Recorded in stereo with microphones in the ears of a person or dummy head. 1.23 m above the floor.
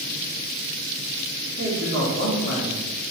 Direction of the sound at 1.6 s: 80° right.